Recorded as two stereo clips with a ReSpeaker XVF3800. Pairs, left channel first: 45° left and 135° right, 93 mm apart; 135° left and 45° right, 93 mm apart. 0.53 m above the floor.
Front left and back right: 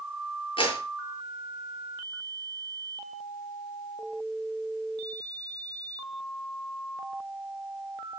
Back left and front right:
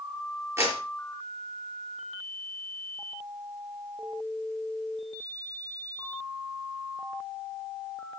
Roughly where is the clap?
Ahead.